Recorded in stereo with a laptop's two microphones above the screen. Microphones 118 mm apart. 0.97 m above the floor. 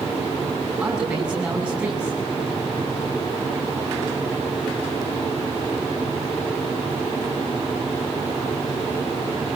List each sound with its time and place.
0.8 s a man speaking: 10° right (ahead or behind), 7.5 m